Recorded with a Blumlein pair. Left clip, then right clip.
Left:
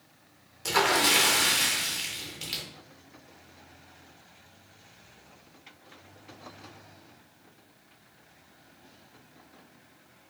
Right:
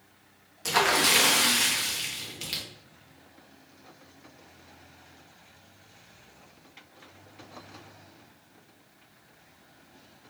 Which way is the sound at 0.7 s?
5° right.